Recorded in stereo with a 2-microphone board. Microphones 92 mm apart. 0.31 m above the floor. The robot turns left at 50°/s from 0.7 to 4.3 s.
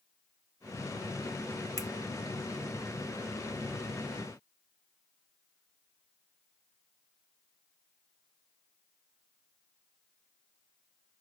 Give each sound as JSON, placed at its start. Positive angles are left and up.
{"t": 1.8, "sound": "a finger snap", "side_deg": 35, "distance_m": 0.9}